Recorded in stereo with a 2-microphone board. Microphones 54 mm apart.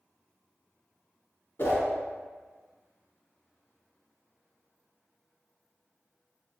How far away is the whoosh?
About 1.0 m.